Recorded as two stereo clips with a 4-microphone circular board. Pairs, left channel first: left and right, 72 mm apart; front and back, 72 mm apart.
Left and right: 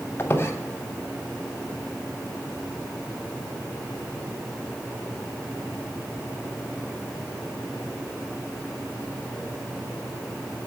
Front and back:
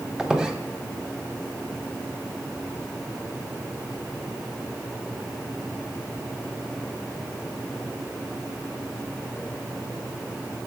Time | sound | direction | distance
0.2 | a squeak | 105° left | 0.6 m